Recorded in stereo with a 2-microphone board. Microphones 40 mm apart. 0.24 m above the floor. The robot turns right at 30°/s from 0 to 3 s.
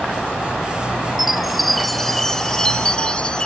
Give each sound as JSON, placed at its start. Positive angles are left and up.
{"t": 1.2, "sound": "a chime", "azimuth_deg": -10}